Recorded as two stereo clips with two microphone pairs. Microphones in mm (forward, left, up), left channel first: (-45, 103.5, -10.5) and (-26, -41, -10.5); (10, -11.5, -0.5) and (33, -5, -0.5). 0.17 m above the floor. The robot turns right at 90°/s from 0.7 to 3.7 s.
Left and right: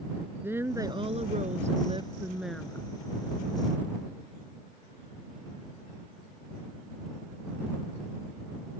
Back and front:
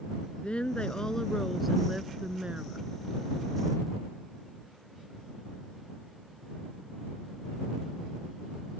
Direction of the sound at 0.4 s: 155° right.